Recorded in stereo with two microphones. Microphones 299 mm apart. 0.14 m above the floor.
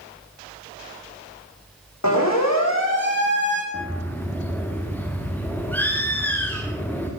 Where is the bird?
5° left (ahead or behind), 5 m.